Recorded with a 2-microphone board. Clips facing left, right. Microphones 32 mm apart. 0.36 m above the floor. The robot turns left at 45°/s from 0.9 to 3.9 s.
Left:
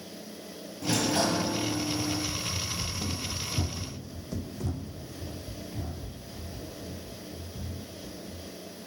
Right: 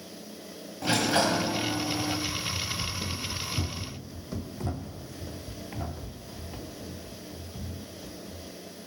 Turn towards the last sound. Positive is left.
turn(degrees=-65)  # may be behind; listen again after turning